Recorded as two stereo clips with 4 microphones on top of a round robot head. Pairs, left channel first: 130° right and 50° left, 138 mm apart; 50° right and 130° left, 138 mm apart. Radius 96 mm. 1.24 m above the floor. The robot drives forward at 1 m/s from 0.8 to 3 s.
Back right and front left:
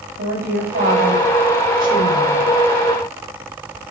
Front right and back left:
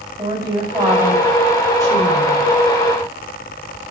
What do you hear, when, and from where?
0.2 s a woman speaking: 60° left, 7.5 m; by 2.5 s 70° left, 7 m